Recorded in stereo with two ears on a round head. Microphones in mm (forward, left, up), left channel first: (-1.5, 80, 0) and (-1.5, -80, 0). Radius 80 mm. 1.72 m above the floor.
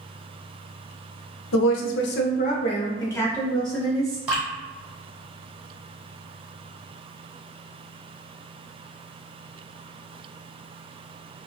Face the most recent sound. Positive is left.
turn(degrees=-10)  # may be behind; listen again after turning